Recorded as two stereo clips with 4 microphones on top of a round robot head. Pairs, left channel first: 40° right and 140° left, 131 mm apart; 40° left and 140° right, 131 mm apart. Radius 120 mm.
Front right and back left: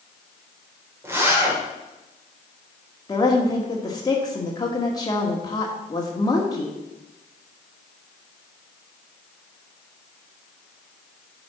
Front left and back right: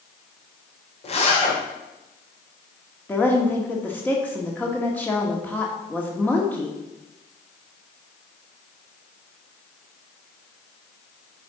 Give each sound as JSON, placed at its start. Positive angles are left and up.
{"t": 1.0, "sound": "a zipper", "azimuth_deg": 70, "distance_m": 2.0}
{"t": 3.1, "sound": "a woman speaking", "azimuth_deg": -25, "distance_m": 1.3}